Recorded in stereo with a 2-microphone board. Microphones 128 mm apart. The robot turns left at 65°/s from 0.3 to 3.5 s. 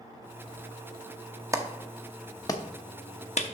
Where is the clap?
25° right (ahead or behind), 0.7 m; by 3.4 s 60° left (ahead or behind), 0.7 m.